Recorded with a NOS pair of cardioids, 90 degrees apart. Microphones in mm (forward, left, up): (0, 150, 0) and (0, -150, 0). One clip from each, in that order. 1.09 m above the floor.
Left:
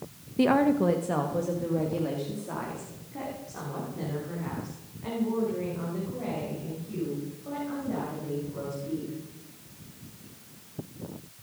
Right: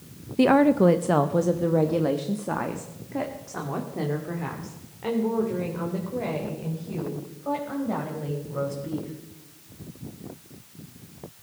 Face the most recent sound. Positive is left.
turn(degrees=-70)